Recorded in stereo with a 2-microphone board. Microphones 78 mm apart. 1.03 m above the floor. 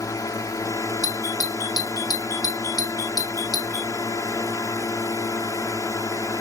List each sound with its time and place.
0.0 s a drone: 50° left (ahead or behind)
1.0 s a doorbell: 55° left (ahead or behind)